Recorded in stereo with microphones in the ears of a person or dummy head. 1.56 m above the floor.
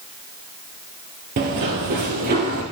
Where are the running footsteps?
35° right (ahead or behind), 1.9 m; by 2.6 s 40° right (ahead or behind), 2.5 m.